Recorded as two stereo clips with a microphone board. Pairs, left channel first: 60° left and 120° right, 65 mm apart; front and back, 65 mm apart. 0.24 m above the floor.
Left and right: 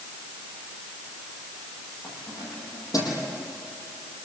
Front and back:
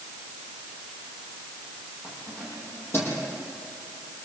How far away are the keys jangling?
About 6.5 m.